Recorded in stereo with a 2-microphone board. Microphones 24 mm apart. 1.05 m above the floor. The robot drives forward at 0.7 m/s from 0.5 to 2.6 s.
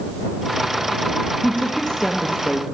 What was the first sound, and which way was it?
A woman speaking, 50° left (ahead or behind).